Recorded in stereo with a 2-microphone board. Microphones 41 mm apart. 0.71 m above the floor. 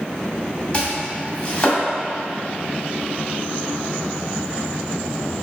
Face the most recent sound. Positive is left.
turn(degrees=25)  # may be behind; listen again after turning